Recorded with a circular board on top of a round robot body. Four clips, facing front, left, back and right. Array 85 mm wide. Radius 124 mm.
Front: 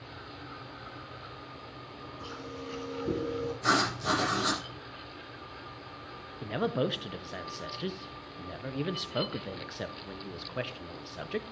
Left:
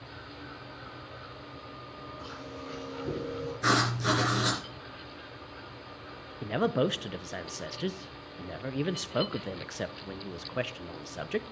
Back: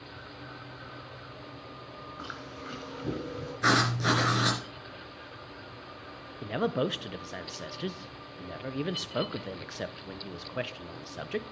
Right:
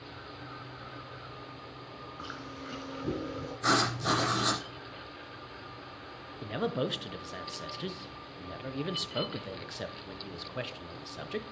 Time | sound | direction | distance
2.2 | chewing | 160° right | 4.5 m
3.6 | writing | 160° left | 3 m
6.4 | a man speaking | 105° left | 0.7 m